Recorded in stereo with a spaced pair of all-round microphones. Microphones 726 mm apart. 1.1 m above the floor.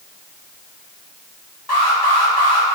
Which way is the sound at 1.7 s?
30° left (ahead or behind).